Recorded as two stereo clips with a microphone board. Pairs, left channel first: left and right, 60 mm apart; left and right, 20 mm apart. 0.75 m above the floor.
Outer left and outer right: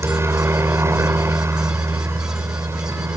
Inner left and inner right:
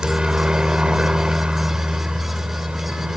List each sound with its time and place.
0.0 s a helicopter: 45° right (ahead or behind); by 3.2 s 50° right (ahead or behind)